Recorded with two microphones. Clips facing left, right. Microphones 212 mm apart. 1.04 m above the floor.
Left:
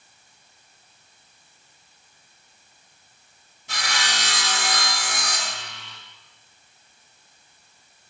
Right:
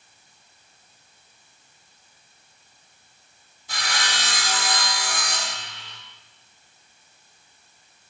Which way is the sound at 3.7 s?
75° left (ahead or behind).